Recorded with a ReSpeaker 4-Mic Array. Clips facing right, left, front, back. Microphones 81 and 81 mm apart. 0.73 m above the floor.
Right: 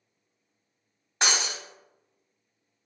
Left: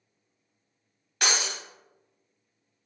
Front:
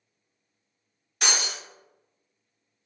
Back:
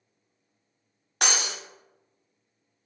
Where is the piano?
I don't hear a piano.